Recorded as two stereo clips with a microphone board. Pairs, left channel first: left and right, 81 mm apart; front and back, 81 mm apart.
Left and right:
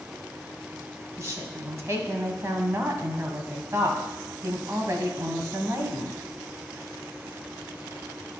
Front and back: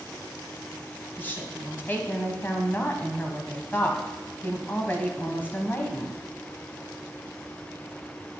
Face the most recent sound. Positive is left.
turn(degrees=-55)